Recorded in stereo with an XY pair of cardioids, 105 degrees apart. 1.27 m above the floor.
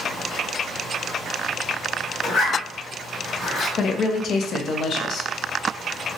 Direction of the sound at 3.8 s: 60° left.